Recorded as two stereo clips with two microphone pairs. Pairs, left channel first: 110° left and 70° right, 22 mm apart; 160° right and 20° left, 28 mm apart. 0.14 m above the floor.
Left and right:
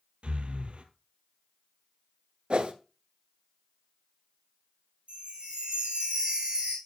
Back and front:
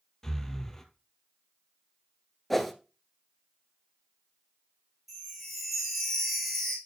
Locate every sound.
0.2 s breathing: 85° right, 1.3 m
2.5 s a whoosh: 75° right, 1.0 m
5.1 s a chime: 65° right, 3.5 m